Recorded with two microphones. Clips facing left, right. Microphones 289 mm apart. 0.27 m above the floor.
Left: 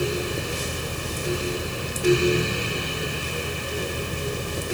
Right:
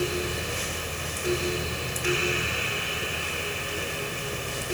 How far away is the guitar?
I don't hear a guitar.